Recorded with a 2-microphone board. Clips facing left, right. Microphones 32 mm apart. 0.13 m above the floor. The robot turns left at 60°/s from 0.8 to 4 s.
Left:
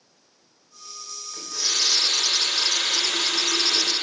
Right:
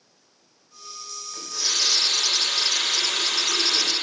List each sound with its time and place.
1.3 s a running tap: 170° right, 4 m; by 3.9 s 35° left, 4 m